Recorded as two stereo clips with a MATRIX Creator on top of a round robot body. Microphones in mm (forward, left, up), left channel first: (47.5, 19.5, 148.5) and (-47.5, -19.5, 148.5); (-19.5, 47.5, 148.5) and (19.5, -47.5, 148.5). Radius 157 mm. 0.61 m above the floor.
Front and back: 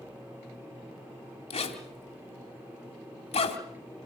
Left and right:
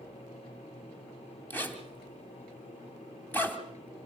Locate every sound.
1.5 s a zipper: 40° left, 2.5 m